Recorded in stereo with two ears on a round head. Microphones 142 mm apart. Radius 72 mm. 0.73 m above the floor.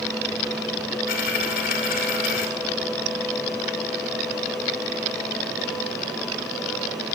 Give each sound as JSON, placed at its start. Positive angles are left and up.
{"t": 1.1, "sound": "a dropped coin", "side_deg": 60, "distance_m": 2.0}